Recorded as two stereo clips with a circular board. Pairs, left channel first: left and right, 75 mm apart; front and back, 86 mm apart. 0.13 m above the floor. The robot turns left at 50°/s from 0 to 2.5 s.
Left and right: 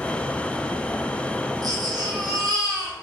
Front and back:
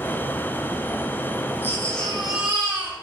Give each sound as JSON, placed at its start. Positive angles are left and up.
{"t": 1.6, "sound": "a baby crying", "azimuth_deg": -60, "distance_m": 4.0}